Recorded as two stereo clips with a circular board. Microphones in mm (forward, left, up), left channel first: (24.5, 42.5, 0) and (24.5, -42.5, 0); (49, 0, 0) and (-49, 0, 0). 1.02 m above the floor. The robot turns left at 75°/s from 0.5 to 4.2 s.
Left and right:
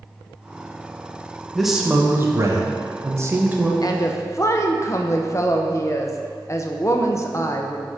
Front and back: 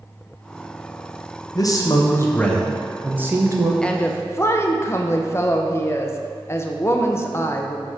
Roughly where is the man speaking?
Ahead.